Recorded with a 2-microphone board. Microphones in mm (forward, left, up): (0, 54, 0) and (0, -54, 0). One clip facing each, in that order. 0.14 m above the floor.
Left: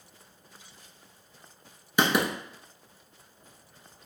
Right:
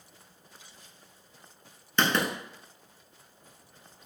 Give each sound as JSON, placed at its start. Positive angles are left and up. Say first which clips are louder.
{"t": 2.0, "sound": "writing", "louder": "left 2 dB", "side_deg": 10, "distance_m": 0.8}